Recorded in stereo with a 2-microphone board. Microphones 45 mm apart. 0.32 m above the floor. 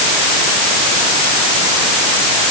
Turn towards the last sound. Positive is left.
No sound to turn to.